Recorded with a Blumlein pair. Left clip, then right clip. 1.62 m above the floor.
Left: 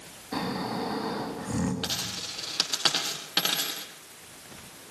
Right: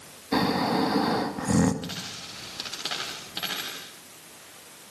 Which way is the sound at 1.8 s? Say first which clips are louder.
Left 4 dB; 25° left.